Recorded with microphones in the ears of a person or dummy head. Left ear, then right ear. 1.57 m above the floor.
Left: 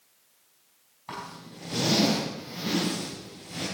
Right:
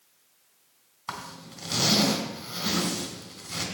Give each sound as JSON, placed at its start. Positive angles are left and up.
{"t": 1.1, "sound": "a zipper", "side_deg": -55, "distance_m": 3.5}